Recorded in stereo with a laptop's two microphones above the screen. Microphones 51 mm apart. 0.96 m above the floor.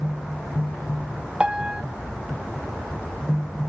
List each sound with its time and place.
1.4 s a piano: 20° right (ahead or behind)